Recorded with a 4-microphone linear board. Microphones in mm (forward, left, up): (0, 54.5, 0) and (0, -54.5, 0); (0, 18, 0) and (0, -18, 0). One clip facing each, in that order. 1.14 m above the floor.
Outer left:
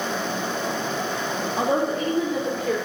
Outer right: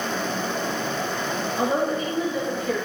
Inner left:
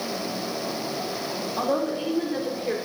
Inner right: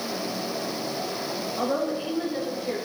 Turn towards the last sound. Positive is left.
turn(degrees=80)